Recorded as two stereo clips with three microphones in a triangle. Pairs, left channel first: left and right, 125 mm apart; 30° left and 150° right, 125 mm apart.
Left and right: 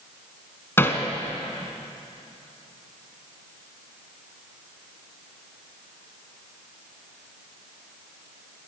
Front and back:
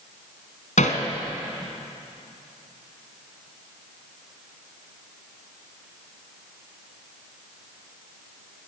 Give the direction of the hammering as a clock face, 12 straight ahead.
11 o'clock.